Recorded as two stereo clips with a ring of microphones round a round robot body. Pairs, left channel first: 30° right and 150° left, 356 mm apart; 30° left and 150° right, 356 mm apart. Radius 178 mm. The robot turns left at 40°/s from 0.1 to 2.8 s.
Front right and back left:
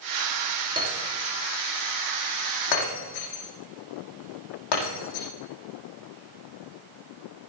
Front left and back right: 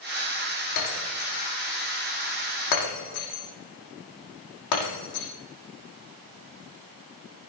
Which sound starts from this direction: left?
Breaking glass, at 0.8 s.